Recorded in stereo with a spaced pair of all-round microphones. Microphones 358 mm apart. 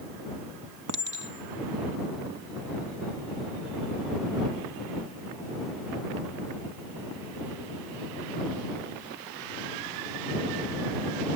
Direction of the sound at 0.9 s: 60° right (ahead or behind).